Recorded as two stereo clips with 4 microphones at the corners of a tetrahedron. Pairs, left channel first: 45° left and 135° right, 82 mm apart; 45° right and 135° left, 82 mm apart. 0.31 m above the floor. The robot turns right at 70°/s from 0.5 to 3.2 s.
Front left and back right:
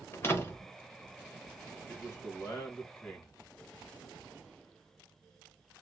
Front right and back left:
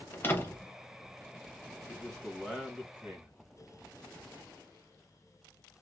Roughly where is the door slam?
Ahead.